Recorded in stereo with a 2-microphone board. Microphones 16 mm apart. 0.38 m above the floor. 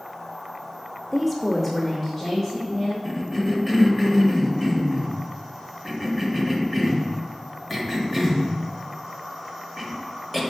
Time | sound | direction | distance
1.1 | a woman speaking | centre (ahead or behind) | 1.1 m
3.0 | a cough | 10° left (ahead or behind) | 1.3 m